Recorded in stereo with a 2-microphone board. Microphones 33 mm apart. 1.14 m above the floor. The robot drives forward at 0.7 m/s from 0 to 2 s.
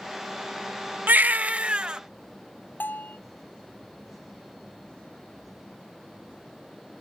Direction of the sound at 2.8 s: 85° left.